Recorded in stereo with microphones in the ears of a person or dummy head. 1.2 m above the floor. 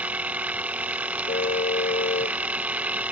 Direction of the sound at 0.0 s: 10° right (ahead or behind).